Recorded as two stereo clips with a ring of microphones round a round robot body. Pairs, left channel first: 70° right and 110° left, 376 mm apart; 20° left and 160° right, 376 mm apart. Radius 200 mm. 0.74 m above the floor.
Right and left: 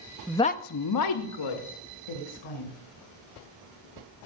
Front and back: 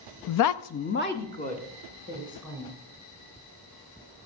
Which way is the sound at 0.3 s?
30° left.